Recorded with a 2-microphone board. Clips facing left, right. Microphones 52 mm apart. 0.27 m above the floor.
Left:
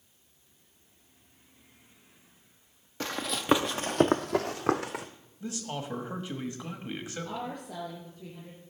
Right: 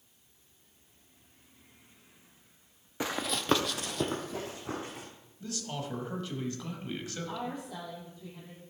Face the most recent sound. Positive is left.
turn(degrees=50)  # may be behind; listen again after turning